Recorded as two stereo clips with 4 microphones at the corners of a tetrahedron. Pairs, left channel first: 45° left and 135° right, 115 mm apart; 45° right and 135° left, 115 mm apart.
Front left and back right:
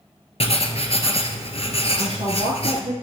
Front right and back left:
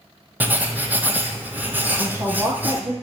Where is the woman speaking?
160° right, 4.5 m.